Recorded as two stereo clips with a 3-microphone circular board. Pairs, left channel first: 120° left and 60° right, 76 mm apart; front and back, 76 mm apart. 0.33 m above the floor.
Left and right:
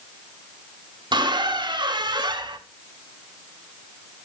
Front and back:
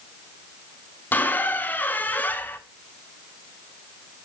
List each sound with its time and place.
1.1 s a squeak: 70° right, 0.6 m